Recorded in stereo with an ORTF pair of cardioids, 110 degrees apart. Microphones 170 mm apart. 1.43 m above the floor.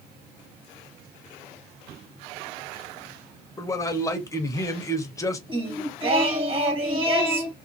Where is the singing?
30° right, 1.5 m.